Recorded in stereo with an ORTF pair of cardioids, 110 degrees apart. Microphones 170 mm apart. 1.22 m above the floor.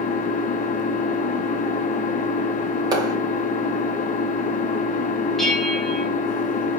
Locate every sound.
0.0 s an engine running: 50° left, 0.9 m
2.9 s a clap: 25° right, 2.5 m
5.4 s a bell: straight ahead, 1.4 m